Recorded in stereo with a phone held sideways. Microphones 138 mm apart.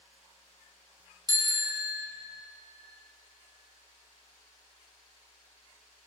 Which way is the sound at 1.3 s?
30° right (ahead or behind).